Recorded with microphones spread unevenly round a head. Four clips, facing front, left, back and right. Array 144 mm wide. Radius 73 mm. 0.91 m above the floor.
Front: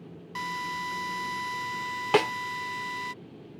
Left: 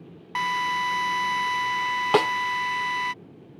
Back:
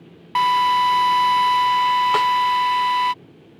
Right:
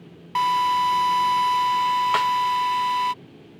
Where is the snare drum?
65° left.